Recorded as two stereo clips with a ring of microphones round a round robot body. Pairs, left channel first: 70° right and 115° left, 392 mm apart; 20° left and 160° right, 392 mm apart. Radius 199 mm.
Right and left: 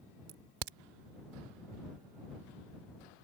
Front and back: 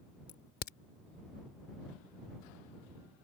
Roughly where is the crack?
Left.